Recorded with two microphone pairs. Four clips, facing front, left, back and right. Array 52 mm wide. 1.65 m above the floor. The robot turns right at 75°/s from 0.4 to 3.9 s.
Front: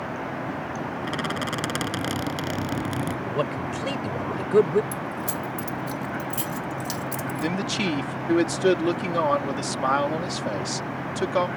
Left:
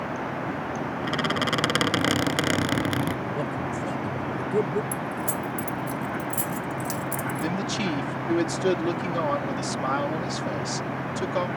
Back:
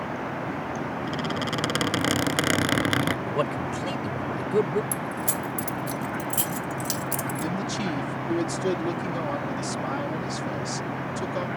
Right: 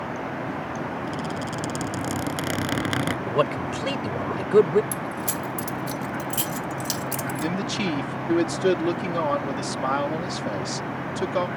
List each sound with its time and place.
1.0 s a squeak: 55° left; by 3.2 s 145° right
3.3 s a man speaking: 105° right; by 4.8 s 55° right
4.9 s keys jangling: 100° right
7.4 s a man speaking: 5° right